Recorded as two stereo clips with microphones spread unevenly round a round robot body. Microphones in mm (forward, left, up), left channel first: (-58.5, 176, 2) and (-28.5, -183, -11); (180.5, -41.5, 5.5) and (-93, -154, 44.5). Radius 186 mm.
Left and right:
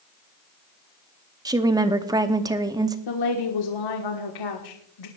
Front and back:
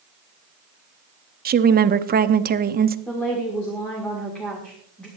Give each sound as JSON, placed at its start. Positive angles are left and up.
{"t": 1.4, "sound": "a woman speaking", "azimuth_deg": -140, "distance_m": 0.7}
{"t": 3.1, "sound": "a woman speaking", "azimuth_deg": 105, "distance_m": 1.4}